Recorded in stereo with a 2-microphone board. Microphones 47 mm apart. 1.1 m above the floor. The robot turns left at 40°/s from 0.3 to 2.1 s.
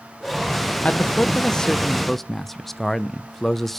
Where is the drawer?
I don't hear a drawer.